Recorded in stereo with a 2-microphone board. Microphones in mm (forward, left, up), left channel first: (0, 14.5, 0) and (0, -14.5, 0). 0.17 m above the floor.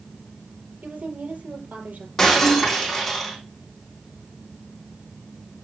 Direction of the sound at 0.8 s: 65° right (ahead or behind).